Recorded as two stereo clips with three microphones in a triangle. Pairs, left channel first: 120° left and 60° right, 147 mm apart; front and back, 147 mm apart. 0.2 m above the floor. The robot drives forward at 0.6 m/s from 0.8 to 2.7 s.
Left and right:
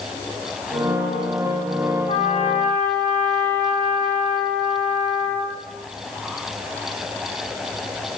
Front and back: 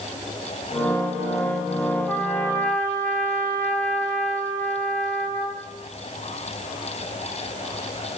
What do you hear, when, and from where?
2.1 s a trumpet: 75° left, 3.5 m; by 5.6 s 80° left, 3.5 m